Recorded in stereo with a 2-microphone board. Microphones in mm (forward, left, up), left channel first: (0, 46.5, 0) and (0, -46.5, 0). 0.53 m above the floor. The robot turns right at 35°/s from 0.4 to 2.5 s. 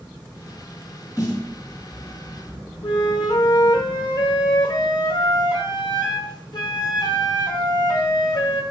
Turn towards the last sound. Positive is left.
turn(degrees=55)  # may be behind; listen again after turning